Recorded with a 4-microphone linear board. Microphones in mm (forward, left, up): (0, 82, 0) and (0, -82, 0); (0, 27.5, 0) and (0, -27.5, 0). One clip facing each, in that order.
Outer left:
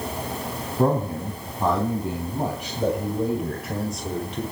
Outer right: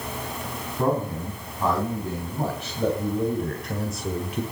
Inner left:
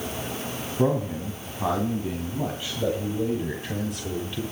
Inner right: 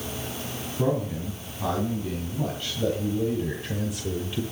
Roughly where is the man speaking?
Left.